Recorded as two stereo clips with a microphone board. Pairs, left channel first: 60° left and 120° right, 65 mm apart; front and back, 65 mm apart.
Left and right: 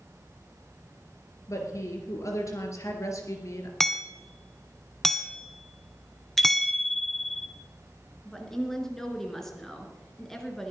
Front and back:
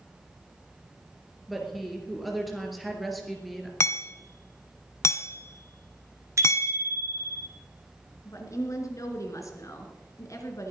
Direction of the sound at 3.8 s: 20° right.